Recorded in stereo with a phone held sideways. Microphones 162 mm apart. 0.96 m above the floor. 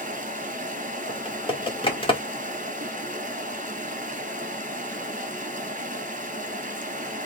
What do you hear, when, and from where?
0.0 s running water: 50° right (ahead or behind), 1.4 m
1.1 s typing on a keyboard: 30° left (ahead or behind), 1.9 m